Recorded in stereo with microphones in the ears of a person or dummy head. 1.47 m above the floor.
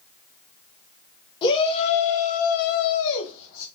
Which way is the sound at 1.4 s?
25° left (ahead or behind).